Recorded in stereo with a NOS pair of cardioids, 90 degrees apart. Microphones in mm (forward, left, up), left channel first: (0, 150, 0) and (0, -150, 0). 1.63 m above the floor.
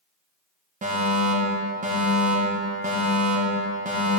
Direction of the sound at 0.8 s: 25° right.